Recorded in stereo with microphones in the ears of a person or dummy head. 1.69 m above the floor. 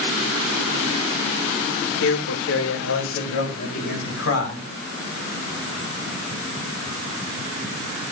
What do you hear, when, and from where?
2.0 s a man speaking: 75° left (ahead or behind), 1.7 m